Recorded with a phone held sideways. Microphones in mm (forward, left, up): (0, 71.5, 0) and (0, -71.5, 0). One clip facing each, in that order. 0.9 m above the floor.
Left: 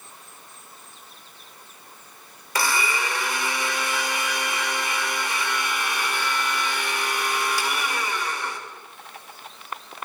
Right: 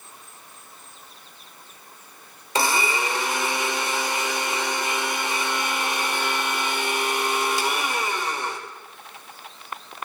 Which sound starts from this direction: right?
A blender, at 2.5 s.